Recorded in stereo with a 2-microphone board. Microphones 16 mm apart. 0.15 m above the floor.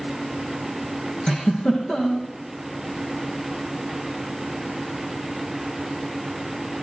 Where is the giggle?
60° left (ahead or behind), 6.5 m.